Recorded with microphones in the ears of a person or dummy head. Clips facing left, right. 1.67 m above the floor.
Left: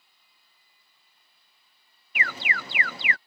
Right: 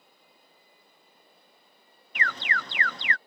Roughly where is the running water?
Right.